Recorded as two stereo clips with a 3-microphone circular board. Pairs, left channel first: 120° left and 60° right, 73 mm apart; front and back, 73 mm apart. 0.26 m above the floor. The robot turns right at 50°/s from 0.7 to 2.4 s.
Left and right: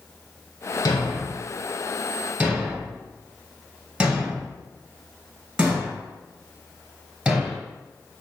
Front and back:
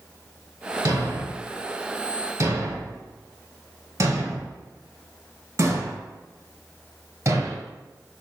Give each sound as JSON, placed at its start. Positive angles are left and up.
{"t": 0.8, "sound": "a thud", "azimuth_deg": 145, "distance_m": 1.5}